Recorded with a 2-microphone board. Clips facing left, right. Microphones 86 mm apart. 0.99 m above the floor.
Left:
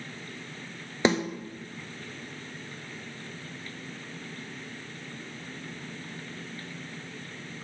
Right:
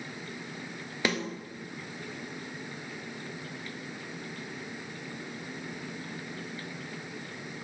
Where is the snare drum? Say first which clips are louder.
Left 6 dB; 25° left (ahead or behind), 0.5 m.